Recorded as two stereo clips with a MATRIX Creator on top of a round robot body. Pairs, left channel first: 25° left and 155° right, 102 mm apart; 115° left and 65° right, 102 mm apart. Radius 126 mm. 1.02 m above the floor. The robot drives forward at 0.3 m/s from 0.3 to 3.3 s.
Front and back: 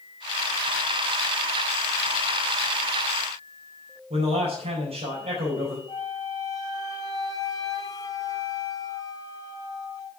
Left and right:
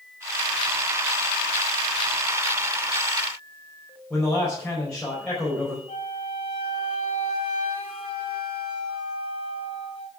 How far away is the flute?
About 2.5 m.